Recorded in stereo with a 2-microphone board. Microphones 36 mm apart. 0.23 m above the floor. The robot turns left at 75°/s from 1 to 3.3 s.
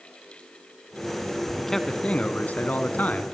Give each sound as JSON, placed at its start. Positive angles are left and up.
{"t": 1.6, "sound": "a man speaking", "azimuth_deg": 180, "distance_m": 2.0}